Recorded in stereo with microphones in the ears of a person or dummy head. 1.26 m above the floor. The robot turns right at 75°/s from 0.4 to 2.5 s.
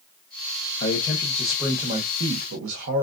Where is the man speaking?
125° left, 1.1 m; by 3.0 s 105° right, 1.1 m.